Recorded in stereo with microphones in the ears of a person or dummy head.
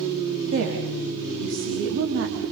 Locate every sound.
0.5 s a woman speaking: 65° right (ahead or behind), 3.5 m